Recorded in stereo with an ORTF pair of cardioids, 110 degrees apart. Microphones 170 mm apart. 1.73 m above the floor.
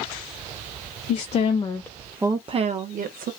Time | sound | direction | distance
1.1 | a woman speaking | 50° left | 0.7 m